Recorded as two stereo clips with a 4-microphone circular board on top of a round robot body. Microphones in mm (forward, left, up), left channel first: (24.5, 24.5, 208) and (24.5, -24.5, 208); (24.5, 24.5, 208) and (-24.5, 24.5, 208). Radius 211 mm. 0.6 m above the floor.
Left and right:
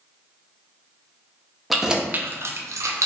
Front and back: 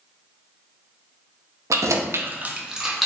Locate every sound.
1.7 s keys jangling: straight behind, 0.6 m; by 3.1 s 90° right, 0.8 m